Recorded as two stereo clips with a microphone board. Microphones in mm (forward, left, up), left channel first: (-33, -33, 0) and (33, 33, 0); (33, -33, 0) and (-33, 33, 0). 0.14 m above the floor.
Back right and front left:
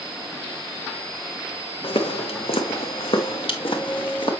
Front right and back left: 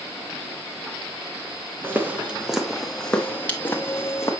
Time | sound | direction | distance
1.8 | footsteps | 155° right | 1.3 m